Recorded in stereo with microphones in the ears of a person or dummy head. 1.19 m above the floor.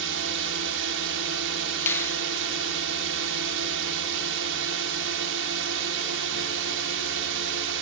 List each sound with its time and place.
0.0 s a drone: 65° right (ahead or behind)
1.9 s a finger snap: 15° left (ahead or behind)